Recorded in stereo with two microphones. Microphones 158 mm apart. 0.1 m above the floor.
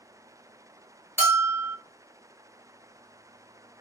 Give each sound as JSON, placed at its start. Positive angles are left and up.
{"t": 1.2, "sound": "a bell", "side_deg": -20, "distance_m": 1.8}